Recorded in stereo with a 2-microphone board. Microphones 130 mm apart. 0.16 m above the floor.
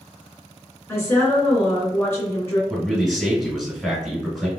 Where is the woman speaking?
20° left (ahead or behind), 1.8 m.